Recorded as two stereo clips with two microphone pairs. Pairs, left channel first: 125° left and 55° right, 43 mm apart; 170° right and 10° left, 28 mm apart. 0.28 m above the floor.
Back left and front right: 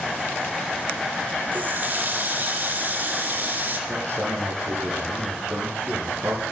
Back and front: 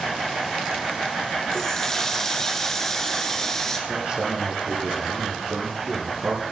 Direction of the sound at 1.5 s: 100° right.